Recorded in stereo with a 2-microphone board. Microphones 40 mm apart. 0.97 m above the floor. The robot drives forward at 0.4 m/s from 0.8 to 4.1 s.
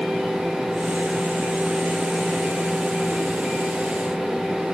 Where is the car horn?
No car horn in this recording.